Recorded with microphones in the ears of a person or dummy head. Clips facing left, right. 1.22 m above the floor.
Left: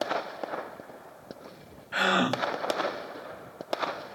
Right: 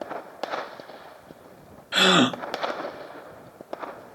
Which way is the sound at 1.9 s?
50° right (ahead or behind).